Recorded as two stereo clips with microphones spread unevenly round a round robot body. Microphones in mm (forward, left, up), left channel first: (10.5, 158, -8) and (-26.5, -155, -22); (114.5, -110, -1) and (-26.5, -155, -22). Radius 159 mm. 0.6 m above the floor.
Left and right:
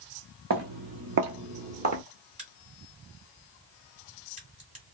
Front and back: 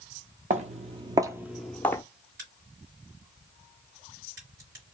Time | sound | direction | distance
0.5 | footsteps | 130° right | 0.9 m
2.4 | a crack | 170° right | 2.0 m